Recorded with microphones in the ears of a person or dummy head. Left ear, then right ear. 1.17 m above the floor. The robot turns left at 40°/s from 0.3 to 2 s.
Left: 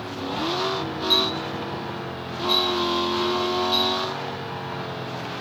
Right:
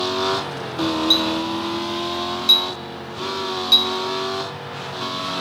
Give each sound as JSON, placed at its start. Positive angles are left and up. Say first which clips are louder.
{"t": 1.1, "sound": "a clink", "louder": "even", "side_deg": -15, "distance_m": 1.4}